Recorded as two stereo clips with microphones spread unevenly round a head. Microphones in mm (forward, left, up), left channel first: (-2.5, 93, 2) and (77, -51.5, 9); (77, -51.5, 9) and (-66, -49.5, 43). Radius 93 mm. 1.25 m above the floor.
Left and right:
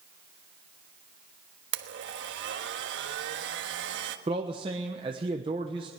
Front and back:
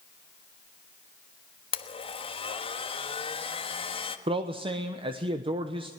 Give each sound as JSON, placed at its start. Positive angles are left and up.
{"t": 1.7, "sound": "a blender", "azimuth_deg": -55, "distance_m": 1.4}
{"t": 4.3, "sound": "a man speaking", "azimuth_deg": -125, "distance_m": 1.1}